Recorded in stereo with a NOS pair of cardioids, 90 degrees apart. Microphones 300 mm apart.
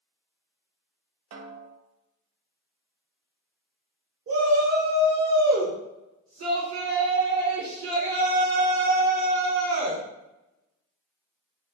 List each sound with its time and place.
1.3 s a snare drum: 60° right, 0.7 m
4.3 s a shout: 55° right, 1.6 m